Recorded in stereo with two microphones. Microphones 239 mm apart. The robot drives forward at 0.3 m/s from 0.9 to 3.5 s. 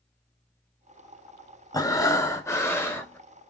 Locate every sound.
1.7 s breathing: 15° left (ahead or behind), 0.6 m; by 3.2 s 10° left (ahead or behind), 0.9 m